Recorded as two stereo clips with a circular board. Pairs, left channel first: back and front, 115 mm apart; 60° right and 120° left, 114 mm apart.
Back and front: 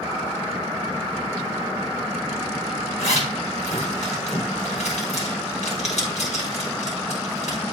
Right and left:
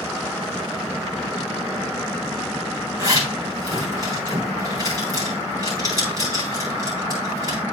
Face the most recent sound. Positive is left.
turn(degrees=180)